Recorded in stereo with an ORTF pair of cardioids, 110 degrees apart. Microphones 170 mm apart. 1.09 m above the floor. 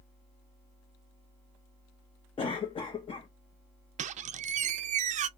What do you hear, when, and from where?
2.4 s a cough: 35° left, 0.8 m
4.0 s a squeak: 45° right, 0.5 m